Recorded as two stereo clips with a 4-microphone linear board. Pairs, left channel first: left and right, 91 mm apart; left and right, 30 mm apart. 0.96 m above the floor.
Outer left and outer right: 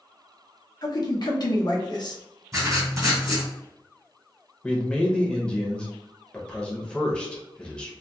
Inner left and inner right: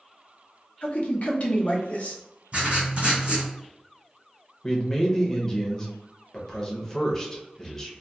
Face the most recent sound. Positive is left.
turn(degrees=10)  # may be behind; listen again after turning